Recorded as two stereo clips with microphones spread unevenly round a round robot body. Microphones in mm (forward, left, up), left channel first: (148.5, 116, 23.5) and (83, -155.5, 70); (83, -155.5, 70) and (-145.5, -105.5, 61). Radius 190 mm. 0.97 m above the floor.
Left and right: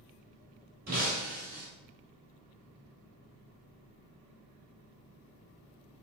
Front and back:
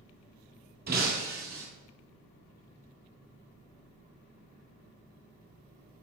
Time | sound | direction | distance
0.9 | breaking glass | 155° right | 1.5 m